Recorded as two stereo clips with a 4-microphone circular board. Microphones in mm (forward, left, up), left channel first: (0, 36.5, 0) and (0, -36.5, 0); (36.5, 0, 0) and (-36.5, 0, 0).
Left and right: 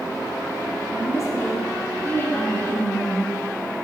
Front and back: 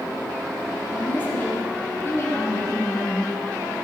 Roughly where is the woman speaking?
Ahead left.